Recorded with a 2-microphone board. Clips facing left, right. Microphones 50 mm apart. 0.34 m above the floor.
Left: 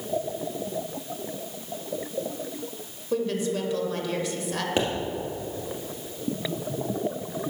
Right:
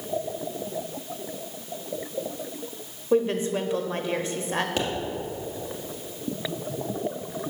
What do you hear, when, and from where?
3.1 s a woman speaking: 30° right (ahead or behind), 1.0 m
4.8 s a pop: 25° left (ahead or behind), 2 m